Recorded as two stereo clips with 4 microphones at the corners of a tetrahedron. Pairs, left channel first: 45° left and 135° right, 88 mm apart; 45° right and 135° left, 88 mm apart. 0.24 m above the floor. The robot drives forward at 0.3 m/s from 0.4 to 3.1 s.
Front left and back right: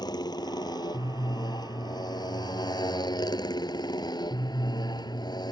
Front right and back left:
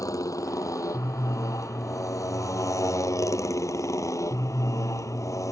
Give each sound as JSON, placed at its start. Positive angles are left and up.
{"t": 0.0, "sound": "a motorcycle", "azimuth_deg": 5}